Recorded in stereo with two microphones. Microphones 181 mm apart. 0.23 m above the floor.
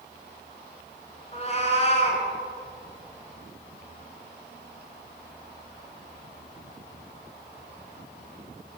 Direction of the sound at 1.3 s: 35° left (ahead or behind).